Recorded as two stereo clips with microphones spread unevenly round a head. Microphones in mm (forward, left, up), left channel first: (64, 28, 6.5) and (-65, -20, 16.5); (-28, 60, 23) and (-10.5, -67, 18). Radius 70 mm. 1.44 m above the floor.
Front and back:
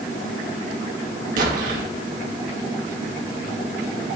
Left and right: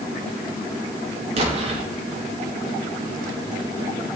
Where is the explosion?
125° right, 2.5 m.